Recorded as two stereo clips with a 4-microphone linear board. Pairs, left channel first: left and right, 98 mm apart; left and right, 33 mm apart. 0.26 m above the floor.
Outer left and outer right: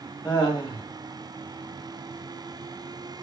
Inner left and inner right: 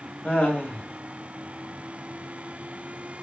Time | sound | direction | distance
0.2 | laughter | 35° left (ahead or behind) | 1.3 m